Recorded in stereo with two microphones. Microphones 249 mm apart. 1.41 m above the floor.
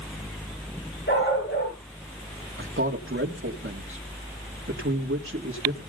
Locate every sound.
1.1 s a dog barking: 50° left (ahead or behind), 7.5 m
2.6 s a man speaking: 55° right (ahead or behind), 2.5 m